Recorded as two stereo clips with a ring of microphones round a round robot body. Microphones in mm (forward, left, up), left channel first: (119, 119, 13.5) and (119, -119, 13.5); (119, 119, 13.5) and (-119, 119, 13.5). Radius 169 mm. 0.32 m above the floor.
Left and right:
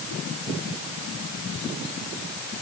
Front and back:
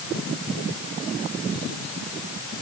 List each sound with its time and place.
Only background noise.